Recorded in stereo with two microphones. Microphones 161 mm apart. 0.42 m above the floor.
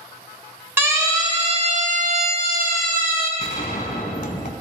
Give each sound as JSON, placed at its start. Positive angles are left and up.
{"t": 0.8, "sound": "a siren", "side_deg": -15, "distance_m": 2.5}
{"t": 3.4, "sound": "a gunshot", "side_deg": 55, "distance_m": 1.2}